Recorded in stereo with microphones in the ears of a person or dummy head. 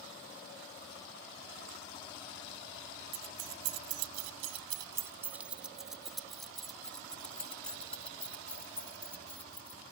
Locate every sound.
3.1 s keys jangling: 50° right (ahead or behind); by 9.8 s 10° left (ahead or behind)